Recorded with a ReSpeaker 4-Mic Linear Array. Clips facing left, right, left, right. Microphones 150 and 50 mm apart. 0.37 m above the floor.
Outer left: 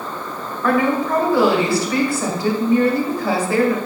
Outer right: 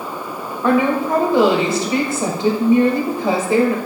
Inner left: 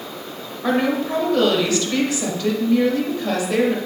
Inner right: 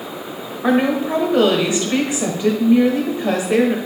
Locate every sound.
0.6 s a woman speaking: 25° right (ahead or behind), 1.3 m